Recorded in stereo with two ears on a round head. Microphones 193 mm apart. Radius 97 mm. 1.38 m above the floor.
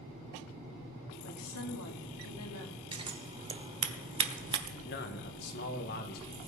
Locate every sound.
1.2 s a woman speaking: 80° left, 2.5 m
2.9 s scissors: 25° right (ahead or behind), 1.2 m
4.8 s a man speaking: 50° left (ahead or behind), 1.8 m